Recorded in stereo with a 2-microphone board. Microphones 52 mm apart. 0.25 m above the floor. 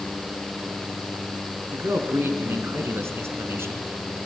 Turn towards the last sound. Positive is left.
turn(degrees=-60)  # may be behind; listen again after turning